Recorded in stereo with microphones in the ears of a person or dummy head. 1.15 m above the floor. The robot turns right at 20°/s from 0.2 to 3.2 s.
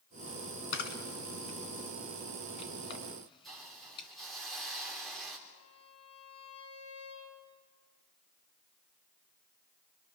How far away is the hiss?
About 3.5 m.